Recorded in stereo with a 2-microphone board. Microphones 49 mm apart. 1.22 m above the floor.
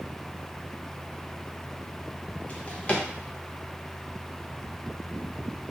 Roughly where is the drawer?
Left.